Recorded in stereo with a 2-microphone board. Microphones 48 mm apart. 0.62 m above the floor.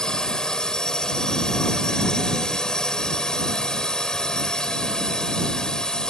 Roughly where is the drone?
Centre.